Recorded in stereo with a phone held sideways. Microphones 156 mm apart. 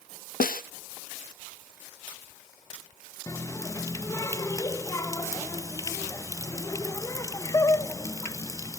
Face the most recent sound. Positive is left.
turn(degrees=20)  # may be behind; listen again after turning